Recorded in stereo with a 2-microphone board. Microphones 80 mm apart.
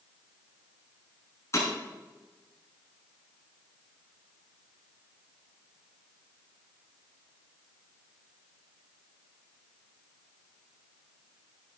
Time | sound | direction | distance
1.5 | breaking glass | 40° left (ahead or behind) | 5.5 m